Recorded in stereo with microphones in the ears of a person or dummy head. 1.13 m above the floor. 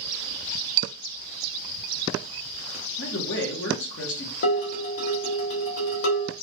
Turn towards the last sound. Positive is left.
turn(degrees=70)  # may be behind; listen again after turning